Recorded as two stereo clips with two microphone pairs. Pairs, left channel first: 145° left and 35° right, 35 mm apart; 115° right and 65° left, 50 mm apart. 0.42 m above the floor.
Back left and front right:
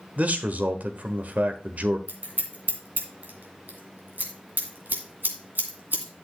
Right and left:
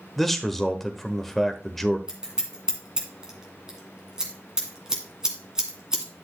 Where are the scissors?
15° right, 2 m.